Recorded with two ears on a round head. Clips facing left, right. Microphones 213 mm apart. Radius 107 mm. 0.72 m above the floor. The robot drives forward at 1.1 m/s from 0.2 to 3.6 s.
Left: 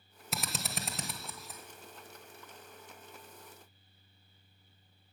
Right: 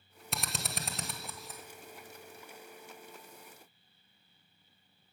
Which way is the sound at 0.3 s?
Centre (ahead or behind).